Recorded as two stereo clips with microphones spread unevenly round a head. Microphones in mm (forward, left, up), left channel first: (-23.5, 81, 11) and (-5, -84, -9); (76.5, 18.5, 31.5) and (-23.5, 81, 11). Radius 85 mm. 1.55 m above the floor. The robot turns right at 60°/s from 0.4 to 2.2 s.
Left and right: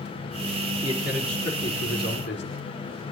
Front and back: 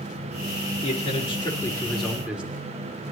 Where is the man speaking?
15° right, 3.5 m; by 2.6 s 65° left, 3.5 m.